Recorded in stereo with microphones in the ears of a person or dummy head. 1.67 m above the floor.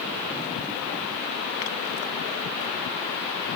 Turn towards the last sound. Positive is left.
No sound to turn to.